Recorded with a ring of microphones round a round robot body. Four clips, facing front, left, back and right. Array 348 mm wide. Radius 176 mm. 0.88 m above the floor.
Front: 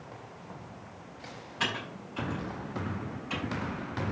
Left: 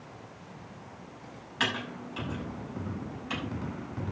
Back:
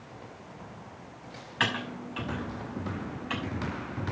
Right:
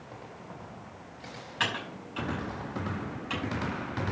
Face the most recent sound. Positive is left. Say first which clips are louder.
# left 1 dB, back 4 dB
turn(degrees=-175)